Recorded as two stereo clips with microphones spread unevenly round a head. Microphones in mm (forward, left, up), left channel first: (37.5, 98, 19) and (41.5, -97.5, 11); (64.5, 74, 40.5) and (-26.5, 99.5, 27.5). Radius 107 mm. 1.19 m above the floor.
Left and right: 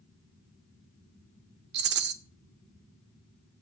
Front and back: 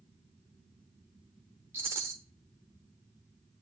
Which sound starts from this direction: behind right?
A rattle, at 1.7 s.